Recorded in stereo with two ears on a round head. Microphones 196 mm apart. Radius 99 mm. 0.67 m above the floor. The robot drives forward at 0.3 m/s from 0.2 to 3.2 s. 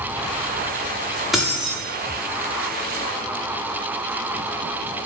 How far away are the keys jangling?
About 0.6 m.